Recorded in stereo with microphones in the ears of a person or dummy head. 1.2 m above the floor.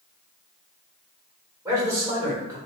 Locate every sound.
1.6 s a man speaking: 15° right (ahead or behind), 1.7 m